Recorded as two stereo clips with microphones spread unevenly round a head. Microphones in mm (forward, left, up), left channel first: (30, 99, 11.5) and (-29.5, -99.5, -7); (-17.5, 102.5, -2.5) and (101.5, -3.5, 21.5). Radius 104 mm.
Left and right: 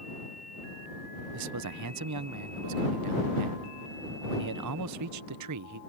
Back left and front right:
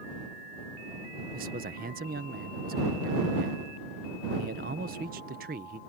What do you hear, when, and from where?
1.3 s a man speaking: 95° right